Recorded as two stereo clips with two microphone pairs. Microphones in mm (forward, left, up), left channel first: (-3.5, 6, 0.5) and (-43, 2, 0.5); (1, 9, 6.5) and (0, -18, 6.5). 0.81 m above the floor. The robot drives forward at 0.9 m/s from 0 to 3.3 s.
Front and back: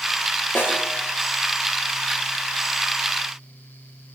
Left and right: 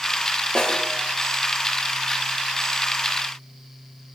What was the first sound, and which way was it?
A snare drum, 35° left.